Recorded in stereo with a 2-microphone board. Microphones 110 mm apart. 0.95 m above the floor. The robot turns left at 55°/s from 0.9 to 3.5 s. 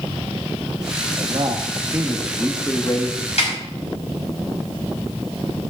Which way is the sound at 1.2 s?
120° right.